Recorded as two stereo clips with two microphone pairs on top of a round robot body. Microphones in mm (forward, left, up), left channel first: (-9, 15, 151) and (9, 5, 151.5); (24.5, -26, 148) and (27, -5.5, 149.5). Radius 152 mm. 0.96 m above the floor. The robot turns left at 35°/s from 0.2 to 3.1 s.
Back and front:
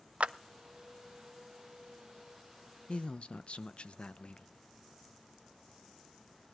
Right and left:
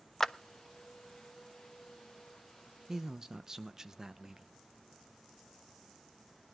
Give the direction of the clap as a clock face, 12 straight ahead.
1 o'clock.